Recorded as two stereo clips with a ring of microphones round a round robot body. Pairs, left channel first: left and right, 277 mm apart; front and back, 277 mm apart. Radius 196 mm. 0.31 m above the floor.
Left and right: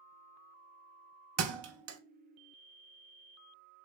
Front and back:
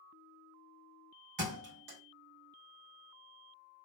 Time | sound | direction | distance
1.4 | a thud | 135° right | 0.6 m